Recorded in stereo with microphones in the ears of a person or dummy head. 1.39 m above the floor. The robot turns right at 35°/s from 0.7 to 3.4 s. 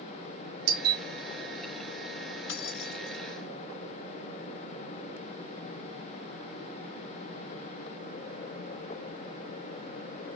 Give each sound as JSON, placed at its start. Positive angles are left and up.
{"t": 0.7, "sound": "a doorbell", "side_deg": -65, "distance_m": 3.5}
{"t": 2.5, "sound": "keys jangling", "side_deg": 65, "distance_m": 1.7}